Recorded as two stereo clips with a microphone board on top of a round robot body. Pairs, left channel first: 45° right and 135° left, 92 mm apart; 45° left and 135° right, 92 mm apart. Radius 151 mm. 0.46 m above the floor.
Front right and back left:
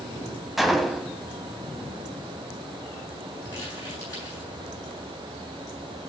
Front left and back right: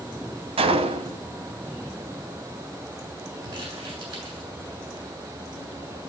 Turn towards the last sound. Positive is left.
turn(degrees=-100)